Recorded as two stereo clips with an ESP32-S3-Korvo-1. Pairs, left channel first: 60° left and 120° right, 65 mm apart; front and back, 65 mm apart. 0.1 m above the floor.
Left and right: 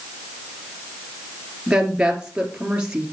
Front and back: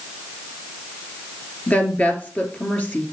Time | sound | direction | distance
1.7 | a woman speaking | 50° right | 2 m